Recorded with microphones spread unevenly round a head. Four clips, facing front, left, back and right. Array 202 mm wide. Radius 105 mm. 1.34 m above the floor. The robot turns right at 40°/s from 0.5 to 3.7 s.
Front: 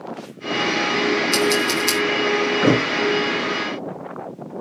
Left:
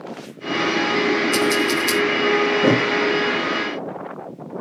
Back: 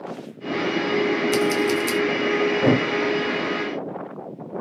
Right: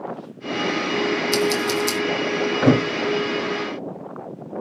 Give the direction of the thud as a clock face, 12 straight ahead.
4 o'clock.